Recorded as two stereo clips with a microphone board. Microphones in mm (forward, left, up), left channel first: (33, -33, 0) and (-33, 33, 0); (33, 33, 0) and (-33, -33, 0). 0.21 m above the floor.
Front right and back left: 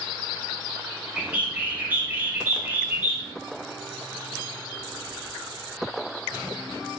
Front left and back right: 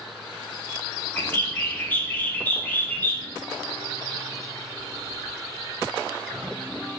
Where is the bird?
90° left, 0.8 m.